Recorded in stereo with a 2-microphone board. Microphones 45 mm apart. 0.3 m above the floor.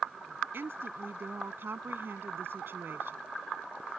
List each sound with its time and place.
0.5 s a woman speaking: 55° right (ahead or behind)